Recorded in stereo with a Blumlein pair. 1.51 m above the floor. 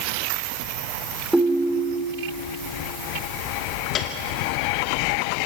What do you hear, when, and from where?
1.3 s a ringtone: 5° right, 3 m
4.0 s a piano: 30° left, 2.5 m